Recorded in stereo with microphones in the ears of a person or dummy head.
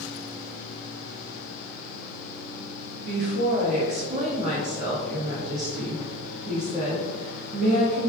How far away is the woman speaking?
About 1.4 m.